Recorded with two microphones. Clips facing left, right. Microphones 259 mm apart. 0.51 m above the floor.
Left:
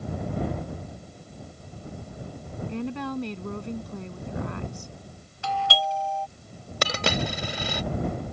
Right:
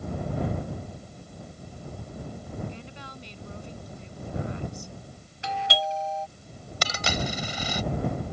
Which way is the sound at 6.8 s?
65° left (ahead or behind).